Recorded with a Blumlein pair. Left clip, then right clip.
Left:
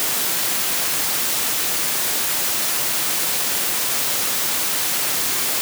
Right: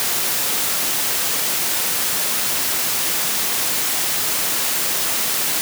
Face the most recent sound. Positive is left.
No sound to turn to.